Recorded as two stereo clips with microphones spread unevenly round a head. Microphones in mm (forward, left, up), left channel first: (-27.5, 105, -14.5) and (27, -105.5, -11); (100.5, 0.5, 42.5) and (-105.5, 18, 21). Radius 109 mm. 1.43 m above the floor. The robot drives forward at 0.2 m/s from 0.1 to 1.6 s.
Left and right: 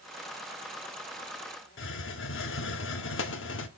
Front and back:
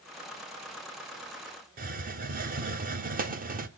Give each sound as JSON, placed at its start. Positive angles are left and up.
{"t": 1.8, "sound": "a hiss", "azimuth_deg": 135, "distance_m": 0.7}